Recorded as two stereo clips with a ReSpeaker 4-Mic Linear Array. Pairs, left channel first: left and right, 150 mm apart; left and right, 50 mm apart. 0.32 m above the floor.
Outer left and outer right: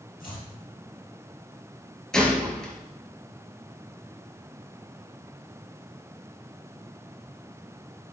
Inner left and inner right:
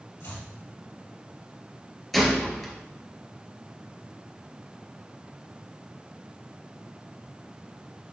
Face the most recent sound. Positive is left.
turn(degrees=5)  # may be behind; listen again after turning